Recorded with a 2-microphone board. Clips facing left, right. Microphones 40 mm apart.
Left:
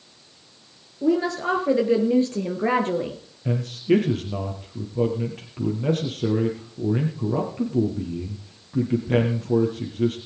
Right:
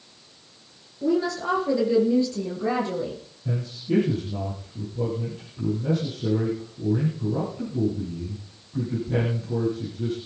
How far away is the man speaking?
About 3 m.